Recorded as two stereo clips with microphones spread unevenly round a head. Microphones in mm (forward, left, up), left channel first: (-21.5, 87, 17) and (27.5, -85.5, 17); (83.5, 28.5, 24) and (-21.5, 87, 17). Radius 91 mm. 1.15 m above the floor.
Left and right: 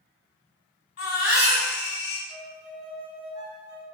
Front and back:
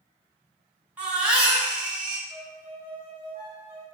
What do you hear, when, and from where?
1.0 s a baby crying: 70° left, 1.9 m
2.3 s a violin: 135° right, 1.6 m